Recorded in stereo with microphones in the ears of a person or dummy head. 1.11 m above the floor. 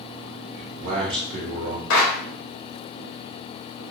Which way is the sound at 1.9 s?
75° left (ahead or behind).